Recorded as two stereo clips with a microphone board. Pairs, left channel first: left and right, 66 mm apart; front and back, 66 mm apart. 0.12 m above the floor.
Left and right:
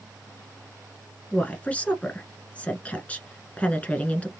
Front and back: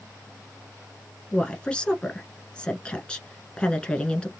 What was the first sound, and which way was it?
A woman speaking, 55° left.